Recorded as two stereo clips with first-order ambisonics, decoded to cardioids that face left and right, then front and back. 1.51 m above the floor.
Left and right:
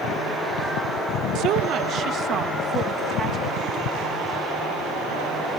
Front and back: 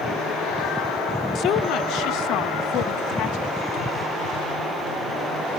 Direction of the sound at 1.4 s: 50° right.